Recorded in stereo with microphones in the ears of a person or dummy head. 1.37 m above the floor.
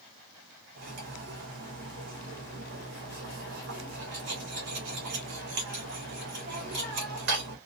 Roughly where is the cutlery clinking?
Right.